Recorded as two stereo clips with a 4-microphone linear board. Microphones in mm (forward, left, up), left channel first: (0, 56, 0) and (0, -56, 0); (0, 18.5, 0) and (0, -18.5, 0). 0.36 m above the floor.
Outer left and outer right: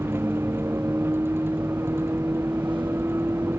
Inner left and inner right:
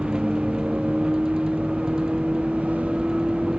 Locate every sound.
0.0 s a vehicle: 20° right (ahead or behind)